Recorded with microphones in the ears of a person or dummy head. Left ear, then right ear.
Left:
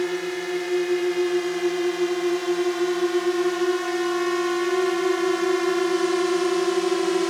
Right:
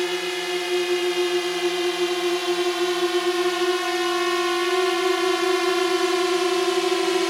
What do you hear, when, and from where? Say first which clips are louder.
0.0 s a drone: right 2 dB; 30° right (ahead or behind); by 7.3 s 25° right (ahead or behind)